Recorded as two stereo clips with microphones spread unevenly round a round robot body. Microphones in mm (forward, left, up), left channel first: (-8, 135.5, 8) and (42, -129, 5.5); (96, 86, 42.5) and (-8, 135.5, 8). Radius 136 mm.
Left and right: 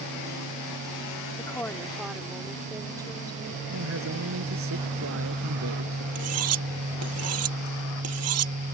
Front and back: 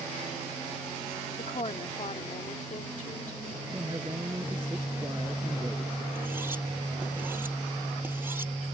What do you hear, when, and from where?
1.4 s a woman speaking: 25° left; by 3.6 s 5° right
3.7 s a man speaking: 125° right
6.2 s cutlery clinking: 120° right